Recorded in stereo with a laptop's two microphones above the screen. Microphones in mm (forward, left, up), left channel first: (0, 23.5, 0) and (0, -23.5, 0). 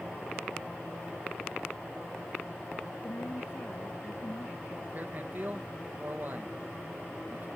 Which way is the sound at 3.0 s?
55° left (ahead or behind).